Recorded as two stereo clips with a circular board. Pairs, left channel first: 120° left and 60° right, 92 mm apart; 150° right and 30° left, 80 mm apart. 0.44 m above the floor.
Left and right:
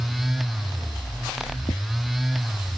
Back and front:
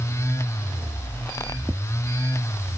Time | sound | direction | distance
1.7 | tapping | 100° left | ?